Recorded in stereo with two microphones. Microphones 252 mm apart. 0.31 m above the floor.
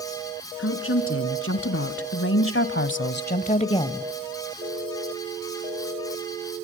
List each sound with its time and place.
0.6 s a woman speaking: 60° left (ahead or behind), 3.5 m; by 4.1 s 5° left (ahead or behind), 1.2 m